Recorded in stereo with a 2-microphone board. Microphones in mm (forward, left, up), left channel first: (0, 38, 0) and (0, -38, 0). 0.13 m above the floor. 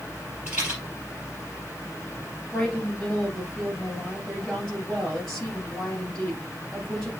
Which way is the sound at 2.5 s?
5° left (ahead or behind).